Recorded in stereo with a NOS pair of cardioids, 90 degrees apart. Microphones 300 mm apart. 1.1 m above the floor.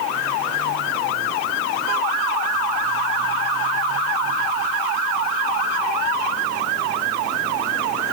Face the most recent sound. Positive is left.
No sound to turn to.